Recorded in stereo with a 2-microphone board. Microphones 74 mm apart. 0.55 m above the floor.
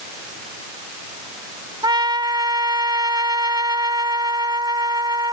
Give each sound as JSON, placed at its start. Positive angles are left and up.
{"t": 1.8, "sound": "a trumpet", "side_deg": -85}